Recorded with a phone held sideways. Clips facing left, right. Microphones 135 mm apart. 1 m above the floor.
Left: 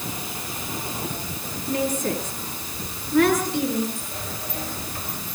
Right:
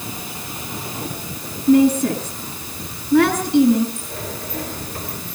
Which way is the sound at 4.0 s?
55° right (ahead or behind).